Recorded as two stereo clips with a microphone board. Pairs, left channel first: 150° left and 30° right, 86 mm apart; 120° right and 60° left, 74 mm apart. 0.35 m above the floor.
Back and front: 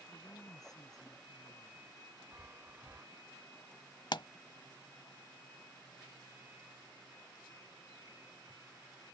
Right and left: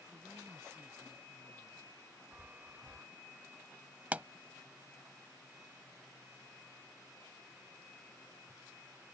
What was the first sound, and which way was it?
A woman speaking, 110° left.